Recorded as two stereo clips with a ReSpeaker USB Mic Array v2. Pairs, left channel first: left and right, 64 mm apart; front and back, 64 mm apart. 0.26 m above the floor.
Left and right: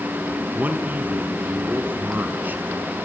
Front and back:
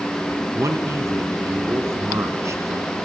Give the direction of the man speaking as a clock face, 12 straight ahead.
5 o'clock.